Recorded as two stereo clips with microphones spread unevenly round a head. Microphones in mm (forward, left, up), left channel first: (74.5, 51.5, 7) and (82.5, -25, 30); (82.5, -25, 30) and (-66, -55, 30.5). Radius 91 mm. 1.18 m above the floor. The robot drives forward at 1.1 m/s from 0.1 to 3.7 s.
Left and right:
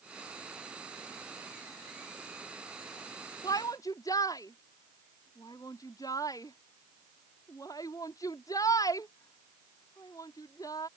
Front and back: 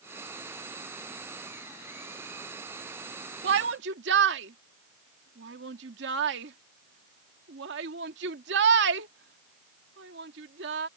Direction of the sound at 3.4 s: 165° left.